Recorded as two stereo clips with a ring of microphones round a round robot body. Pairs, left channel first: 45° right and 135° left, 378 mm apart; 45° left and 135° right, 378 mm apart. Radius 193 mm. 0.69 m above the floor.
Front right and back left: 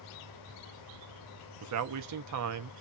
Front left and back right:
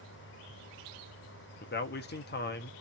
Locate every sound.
1.6 s a man speaking: 105° left, 0.6 m